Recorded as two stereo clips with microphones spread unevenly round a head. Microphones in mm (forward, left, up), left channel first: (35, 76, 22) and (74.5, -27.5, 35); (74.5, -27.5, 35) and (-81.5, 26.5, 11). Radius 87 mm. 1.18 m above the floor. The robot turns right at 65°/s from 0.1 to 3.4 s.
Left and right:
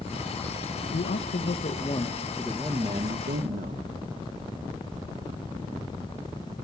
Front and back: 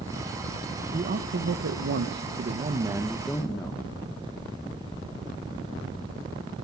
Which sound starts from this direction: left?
A man speaking, at 0.9 s.